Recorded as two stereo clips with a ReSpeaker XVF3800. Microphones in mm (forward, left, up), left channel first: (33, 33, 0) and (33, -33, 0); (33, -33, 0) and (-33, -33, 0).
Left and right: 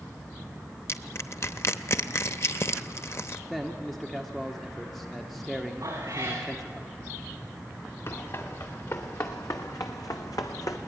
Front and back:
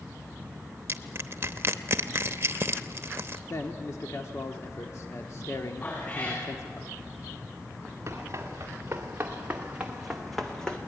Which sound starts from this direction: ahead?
A man speaking, at 3.5 s.